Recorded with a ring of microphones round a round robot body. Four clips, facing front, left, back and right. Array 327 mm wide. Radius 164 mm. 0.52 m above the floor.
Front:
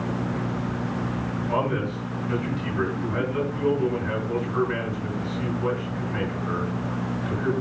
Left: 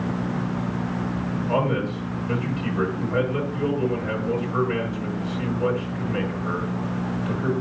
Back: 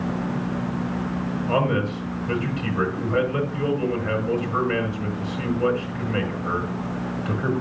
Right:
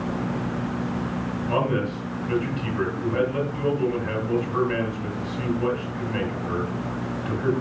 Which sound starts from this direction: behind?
A man speaking, at 1.5 s.